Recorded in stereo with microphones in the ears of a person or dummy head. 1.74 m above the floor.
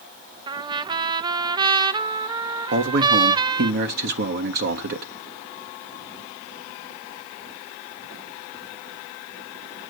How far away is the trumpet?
About 0.6 m.